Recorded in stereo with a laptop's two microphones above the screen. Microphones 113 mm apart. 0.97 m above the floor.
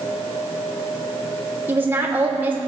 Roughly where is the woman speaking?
Centre.